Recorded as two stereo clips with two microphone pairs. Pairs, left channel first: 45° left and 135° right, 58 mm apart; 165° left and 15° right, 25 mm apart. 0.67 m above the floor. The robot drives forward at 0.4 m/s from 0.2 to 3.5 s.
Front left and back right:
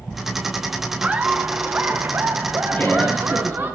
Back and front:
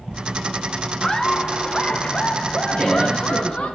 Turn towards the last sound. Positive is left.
turn(degrees=115)